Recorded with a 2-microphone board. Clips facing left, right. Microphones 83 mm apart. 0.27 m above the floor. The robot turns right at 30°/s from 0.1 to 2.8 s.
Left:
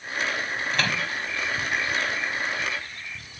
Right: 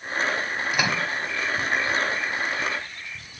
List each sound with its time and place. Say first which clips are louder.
0.7 s a microwave: right 2 dB; 10° right (ahead or behind); by 1.1 s 20° right (ahead or behind)